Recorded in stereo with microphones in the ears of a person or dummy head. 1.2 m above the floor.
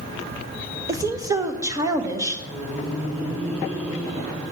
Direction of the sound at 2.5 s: 10° right (ahead or behind).